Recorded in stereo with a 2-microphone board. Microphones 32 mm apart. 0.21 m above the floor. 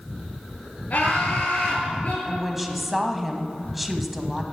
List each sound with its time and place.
0.9 s laughter: 55° left (ahead or behind), 5 m; by 2.1 s 45° left (ahead or behind), 5 m
2.2 s a woman speaking: 5° right (ahead or behind), 1.1 m